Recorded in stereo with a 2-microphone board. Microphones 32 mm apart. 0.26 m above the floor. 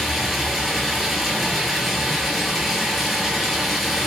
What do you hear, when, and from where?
0.0 s running water: centre (ahead or behind), 4.5 m